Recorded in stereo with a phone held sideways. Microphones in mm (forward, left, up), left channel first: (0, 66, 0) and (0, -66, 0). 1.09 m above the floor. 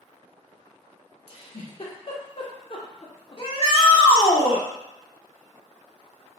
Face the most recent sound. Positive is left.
turn(degrees=45)  # may be behind; listen again after turning